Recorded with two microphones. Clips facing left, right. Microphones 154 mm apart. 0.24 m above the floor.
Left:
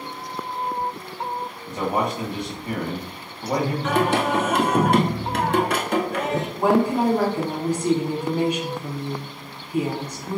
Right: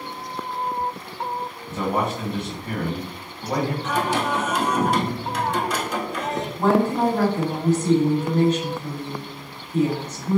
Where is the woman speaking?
10° left (ahead or behind), 1.5 m.